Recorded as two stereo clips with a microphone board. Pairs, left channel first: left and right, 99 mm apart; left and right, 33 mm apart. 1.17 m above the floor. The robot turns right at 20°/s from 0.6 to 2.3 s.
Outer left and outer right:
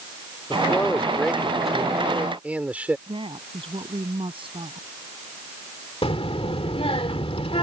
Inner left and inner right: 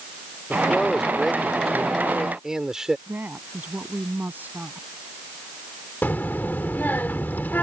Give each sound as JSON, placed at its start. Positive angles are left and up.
{"t": 0.5, "sound": "a man speaking", "azimuth_deg": 160}
{"t": 3.1, "sound": "a woman speaking", "side_deg": -65}
{"t": 6.0, "sound": "a child speaking", "side_deg": 75}